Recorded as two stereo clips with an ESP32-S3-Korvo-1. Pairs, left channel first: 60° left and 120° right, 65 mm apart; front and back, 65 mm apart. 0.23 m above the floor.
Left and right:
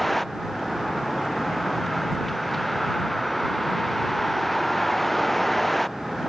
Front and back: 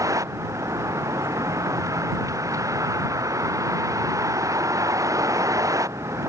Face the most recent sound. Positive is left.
turn(degrees=145)